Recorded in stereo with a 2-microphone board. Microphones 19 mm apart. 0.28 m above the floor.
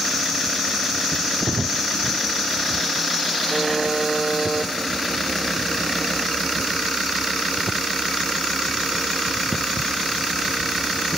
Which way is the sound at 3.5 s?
Centre (ahead or behind).